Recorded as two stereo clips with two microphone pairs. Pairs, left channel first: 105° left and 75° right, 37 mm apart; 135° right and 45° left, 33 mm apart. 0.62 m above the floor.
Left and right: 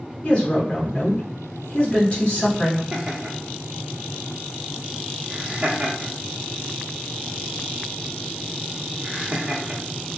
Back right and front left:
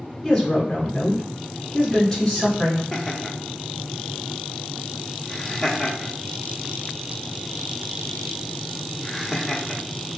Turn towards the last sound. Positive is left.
turn(degrees=-65)